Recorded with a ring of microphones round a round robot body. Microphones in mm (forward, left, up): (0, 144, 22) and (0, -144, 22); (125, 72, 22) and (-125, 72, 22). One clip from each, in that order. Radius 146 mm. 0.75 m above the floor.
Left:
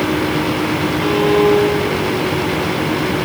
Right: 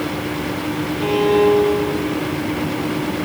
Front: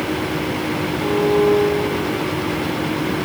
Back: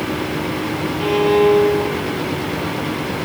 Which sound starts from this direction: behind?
A violin, at 1.0 s.